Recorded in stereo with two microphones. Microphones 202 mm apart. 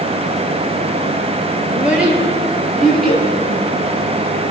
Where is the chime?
No chime in this recording.